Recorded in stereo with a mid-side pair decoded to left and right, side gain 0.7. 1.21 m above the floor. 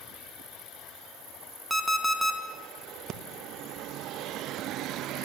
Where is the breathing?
45° right, 0.8 m.